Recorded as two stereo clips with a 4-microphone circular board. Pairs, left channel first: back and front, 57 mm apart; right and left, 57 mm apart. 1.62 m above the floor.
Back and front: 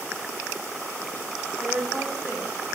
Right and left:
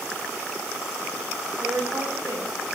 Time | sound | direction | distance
1.6 | a woman speaking | 75° left | 10 m